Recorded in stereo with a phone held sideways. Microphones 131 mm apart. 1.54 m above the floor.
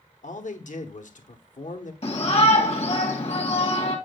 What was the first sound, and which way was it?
A man speaking, 70° left (ahead or behind).